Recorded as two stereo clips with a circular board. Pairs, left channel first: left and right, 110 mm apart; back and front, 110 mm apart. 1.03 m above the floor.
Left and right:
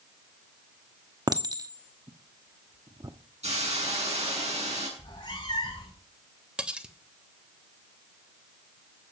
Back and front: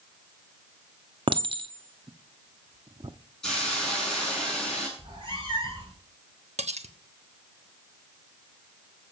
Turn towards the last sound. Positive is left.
turn(degrees=-10)